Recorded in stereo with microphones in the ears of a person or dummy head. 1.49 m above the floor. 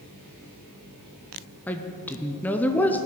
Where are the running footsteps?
I don't hear running footsteps.